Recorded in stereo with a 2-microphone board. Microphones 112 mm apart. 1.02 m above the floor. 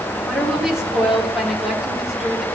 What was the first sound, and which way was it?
A woman speaking, 5° right (ahead or behind).